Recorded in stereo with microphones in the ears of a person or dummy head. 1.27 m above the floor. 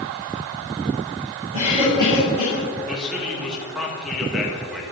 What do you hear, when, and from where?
1.5 s a cough: 30° right (ahead or behind), 4.5 m
2.9 s a man speaking: 10° right (ahead or behind), 2 m